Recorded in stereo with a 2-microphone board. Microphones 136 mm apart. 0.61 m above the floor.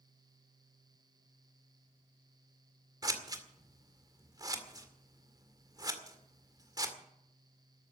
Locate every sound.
3.0 s scissors: 30° right (ahead or behind), 2 m